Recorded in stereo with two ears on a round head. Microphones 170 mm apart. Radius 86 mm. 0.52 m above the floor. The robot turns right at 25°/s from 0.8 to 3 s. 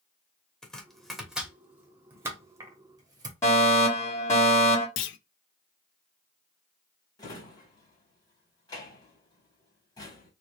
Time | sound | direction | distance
0.6 | chopping | 5° left (ahead or behind) | 1.1 m
3.4 | a fire alarm | 15° left (ahead or behind) | 2 m
5.0 | a clunk | 70° left (ahead or behind) | 0.5 m
7.2 | a drawer | 20° left (ahead or behind) | 1.0 m